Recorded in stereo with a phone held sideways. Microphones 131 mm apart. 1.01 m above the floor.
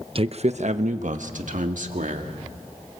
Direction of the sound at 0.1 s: 45° right (ahead or behind).